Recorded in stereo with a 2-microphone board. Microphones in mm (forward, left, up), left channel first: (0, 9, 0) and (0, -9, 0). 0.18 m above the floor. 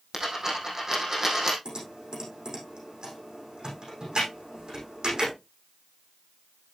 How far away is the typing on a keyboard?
About 7 m.